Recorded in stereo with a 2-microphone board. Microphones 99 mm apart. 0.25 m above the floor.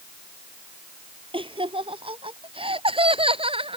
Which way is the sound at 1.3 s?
65° right (ahead or behind).